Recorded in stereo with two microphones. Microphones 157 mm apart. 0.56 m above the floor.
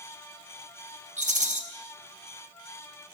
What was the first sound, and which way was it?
A rattle, 55° right (ahead or behind).